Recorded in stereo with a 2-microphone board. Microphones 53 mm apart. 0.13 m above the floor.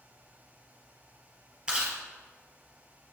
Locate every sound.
1.7 s chewing: 20° right (ahead or behind), 3 m